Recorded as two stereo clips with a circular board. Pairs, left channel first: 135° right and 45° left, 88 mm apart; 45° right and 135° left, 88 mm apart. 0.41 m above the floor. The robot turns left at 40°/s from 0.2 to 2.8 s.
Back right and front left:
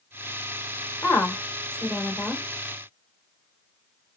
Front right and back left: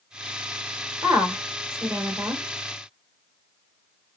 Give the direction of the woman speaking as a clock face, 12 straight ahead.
6 o'clock.